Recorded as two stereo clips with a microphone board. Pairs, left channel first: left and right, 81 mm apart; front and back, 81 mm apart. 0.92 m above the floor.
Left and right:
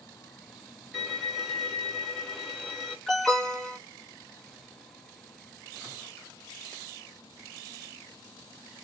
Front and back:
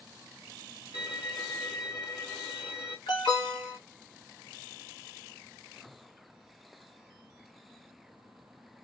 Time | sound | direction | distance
0.9 | a violin | straight ahead | 1.3 m
3.1 | an alarm | 5° left | 1.0 m